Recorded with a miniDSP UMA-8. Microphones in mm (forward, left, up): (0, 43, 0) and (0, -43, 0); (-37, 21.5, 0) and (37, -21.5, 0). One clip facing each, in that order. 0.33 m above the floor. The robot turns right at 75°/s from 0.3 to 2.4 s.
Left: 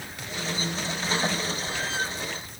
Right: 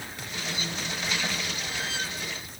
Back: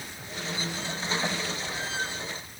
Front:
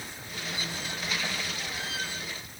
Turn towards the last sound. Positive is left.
No sound to turn to.